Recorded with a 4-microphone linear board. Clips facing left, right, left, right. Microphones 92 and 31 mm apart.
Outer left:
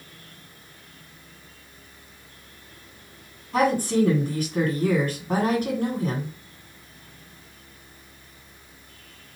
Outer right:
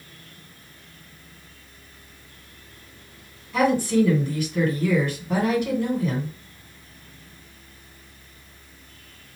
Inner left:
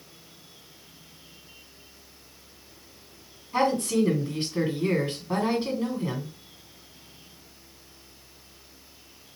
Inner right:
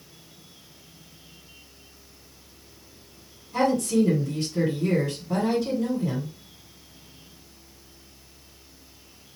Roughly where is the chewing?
No chewing in this recording.